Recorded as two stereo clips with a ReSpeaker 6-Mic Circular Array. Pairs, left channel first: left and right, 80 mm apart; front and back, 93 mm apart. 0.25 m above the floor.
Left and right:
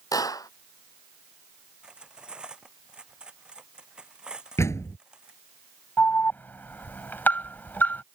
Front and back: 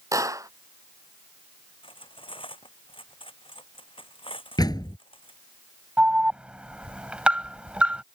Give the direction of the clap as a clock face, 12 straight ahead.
8 o'clock.